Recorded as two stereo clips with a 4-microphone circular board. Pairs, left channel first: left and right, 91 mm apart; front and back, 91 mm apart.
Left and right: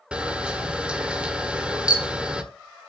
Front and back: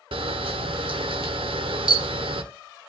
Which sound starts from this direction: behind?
A camera shutter, at 0.1 s.